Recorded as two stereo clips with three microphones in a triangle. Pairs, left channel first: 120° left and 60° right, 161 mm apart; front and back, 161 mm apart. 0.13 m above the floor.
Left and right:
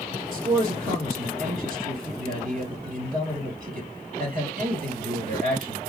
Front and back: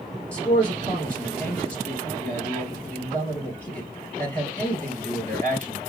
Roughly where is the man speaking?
Right.